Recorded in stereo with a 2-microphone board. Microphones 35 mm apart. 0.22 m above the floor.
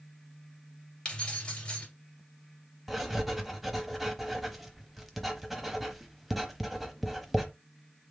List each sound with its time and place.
1.1 s keys jangling: 30° left (ahead or behind), 2.5 m
2.9 s writing: centre (ahead or behind), 0.8 m